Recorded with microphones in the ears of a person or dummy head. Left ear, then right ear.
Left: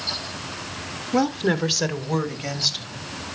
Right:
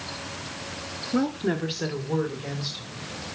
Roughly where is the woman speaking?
Left.